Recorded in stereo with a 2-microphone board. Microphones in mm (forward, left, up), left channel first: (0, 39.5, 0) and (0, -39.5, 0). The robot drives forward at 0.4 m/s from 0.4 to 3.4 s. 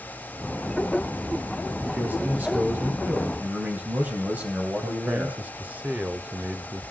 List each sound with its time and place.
1.9 s a man speaking: 25° right (ahead or behind), 1.7 m; by 5.4 s 20° right (ahead or behind), 2 m
4.8 s a man speaking: 20° right (ahead or behind), 0.9 m